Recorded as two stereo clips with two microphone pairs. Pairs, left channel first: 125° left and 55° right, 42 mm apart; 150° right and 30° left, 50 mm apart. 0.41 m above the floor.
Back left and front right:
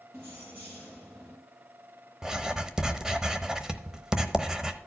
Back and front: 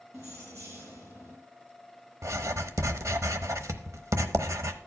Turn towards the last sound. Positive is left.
turn(degrees=20)